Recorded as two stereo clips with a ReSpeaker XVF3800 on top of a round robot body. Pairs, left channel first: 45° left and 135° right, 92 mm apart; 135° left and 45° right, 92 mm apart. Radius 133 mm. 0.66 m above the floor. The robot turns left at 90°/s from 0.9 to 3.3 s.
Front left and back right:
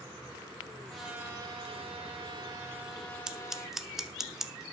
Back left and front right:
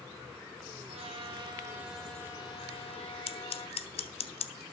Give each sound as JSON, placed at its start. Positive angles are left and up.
{"t": 0.9, "sound": "a trumpet", "azimuth_deg": -40, "distance_m": 5.0}
{"t": 3.3, "sound": "scissors", "azimuth_deg": 145, "distance_m": 1.1}